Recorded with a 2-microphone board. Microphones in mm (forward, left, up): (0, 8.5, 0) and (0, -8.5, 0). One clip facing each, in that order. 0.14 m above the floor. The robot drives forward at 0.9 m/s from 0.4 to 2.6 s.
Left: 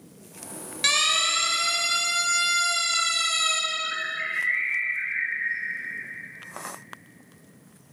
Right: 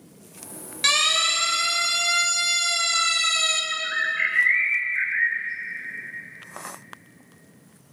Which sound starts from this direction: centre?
A siren, at 0.8 s.